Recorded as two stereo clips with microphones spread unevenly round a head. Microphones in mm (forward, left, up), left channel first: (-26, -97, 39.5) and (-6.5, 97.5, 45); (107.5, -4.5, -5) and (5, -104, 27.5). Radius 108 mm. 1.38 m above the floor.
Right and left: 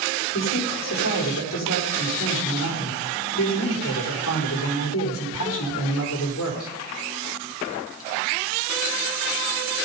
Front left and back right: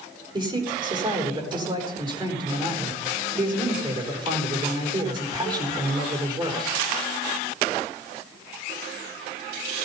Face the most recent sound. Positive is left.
turn(degrees=-80)